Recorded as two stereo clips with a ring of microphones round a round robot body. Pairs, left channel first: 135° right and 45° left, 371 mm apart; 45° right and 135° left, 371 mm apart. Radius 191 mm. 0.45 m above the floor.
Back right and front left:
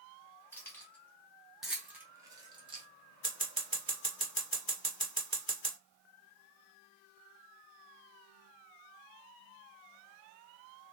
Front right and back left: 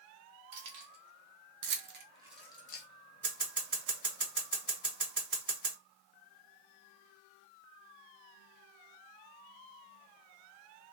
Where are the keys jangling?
140° left, 1.1 m; by 2.9 s 20° right, 0.6 m.